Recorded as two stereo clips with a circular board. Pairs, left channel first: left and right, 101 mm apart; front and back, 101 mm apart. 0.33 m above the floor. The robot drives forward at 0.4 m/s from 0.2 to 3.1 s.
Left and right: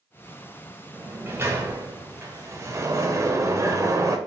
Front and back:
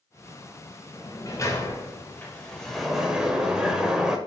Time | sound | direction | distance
0.9 | a sliding door | 30° right | 1.2 m